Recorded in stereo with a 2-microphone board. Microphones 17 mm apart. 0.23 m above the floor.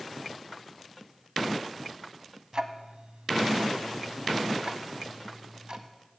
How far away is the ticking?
About 0.7 m.